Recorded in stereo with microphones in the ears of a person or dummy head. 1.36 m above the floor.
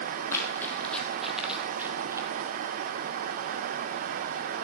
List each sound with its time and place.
0.3 s running footsteps: 15° left (ahead or behind), 3 m; by 2.3 s 20° right (ahead or behind), 2.5 m